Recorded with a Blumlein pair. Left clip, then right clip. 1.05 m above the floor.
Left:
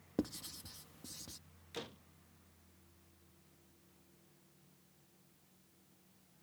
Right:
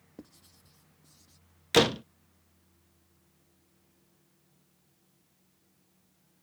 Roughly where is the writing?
Ahead left.